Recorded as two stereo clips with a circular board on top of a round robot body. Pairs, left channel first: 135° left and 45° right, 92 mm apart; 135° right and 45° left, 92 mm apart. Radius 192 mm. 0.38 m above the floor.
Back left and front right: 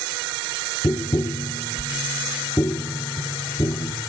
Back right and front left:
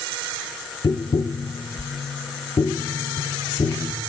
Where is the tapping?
165° right, 1.1 m.